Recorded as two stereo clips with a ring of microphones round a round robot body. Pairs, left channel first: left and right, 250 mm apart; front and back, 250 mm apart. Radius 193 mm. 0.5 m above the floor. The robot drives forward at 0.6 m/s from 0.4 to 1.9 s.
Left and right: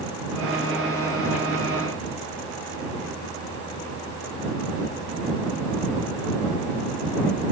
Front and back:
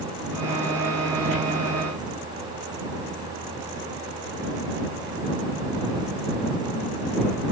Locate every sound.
Only background noise.